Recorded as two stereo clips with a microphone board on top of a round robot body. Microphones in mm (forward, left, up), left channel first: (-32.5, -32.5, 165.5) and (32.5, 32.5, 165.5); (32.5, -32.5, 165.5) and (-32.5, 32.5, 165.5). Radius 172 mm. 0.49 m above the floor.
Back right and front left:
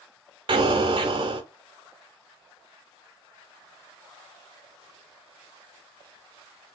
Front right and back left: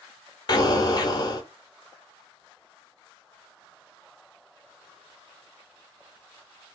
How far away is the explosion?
About 0.6 m.